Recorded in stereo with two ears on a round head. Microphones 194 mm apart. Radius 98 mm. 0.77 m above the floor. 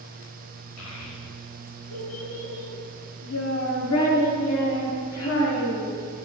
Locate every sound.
0.8 s a child speaking: 85° left, 5 m; by 6.0 s 75° left (ahead or behind), 8 m